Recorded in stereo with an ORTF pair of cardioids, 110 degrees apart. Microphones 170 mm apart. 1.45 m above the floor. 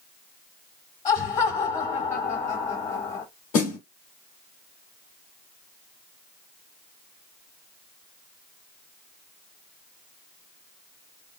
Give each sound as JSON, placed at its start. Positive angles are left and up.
{"t": 1.1, "sound": "laughter", "azimuth_deg": 45, "distance_m": 1.8}
{"t": 3.5, "sound": "a snare drum", "azimuth_deg": 60, "distance_m": 1.8}